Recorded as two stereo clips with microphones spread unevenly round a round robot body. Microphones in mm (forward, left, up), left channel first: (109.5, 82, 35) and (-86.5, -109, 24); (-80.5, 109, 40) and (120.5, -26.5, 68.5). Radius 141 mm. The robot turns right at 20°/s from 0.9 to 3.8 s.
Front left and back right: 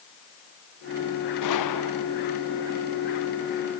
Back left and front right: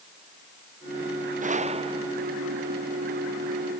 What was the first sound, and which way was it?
A gunshot, 25° left.